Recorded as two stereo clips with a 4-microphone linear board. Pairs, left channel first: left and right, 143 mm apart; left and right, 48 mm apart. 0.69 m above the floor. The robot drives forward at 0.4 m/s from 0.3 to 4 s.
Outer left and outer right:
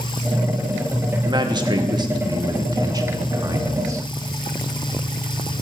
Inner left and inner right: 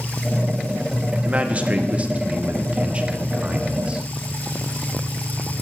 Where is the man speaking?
30° right (ahead or behind), 1.3 m; by 4.0 s 25° right (ahead or behind), 1.6 m.